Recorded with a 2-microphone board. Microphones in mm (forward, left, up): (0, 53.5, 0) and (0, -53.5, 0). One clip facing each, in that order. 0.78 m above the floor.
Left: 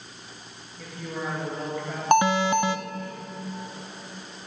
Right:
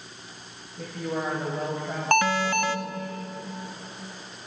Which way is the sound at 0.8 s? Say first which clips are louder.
Right 4 dB; 45° right (ahead or behind).